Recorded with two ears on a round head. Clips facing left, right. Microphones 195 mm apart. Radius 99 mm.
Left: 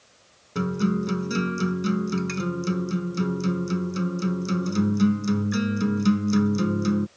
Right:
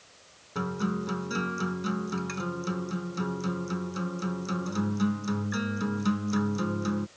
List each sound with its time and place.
0.6 s a guitar: 35° left (ahead or behind)